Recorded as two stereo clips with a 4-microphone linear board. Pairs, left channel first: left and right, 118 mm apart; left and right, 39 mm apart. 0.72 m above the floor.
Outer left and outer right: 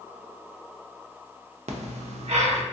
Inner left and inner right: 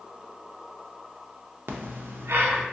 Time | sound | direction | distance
1.7 | breathing | 70° right (ahead or behind) | 0.5 m